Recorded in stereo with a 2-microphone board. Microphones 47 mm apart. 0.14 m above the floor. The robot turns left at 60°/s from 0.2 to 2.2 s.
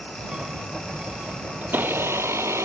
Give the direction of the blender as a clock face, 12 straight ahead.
1 o'clock.